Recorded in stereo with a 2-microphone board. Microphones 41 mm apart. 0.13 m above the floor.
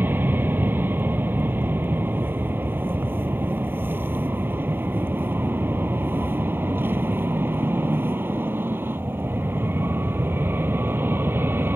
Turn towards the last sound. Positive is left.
turn(degrees=-60)  # may be behind; listen again after turning